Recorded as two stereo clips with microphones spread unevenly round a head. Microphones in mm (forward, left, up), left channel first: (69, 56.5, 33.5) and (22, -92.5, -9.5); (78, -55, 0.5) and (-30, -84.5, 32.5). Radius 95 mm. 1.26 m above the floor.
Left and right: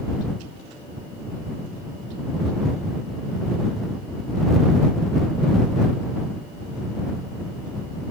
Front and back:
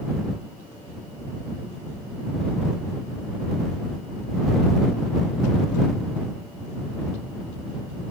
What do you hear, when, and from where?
Only background noise.